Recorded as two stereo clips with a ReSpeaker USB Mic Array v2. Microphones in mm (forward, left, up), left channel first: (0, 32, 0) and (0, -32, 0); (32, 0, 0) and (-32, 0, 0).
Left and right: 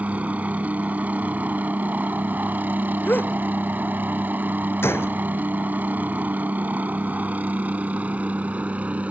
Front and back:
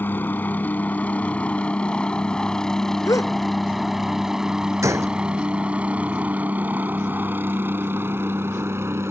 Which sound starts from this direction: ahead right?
A helicopter, at 0.0 s.